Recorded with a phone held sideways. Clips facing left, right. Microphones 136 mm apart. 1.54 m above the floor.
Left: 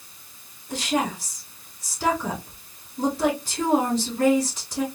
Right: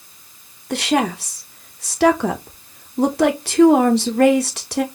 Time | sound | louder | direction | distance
0.7 | a woman speaking | right 6 dB | 70° right (ahead or behind) | 0.6 m